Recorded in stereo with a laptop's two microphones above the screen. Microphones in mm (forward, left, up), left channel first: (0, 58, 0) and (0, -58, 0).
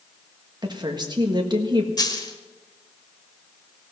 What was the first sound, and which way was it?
A woman speaking, 40° right (ahead or behind).